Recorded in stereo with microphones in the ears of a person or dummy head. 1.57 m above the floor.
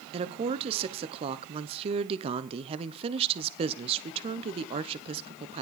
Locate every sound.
0.1 s a woman speaking: 30° right (ahead or behind), 0.8 m